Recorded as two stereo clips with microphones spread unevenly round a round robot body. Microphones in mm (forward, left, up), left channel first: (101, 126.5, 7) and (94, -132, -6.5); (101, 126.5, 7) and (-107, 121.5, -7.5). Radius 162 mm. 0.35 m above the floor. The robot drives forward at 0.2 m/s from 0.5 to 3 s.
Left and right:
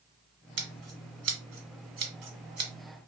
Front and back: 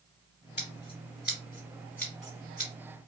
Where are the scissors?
70° right, 1.3 m; by 2.7 s 90° right, 1.2 m.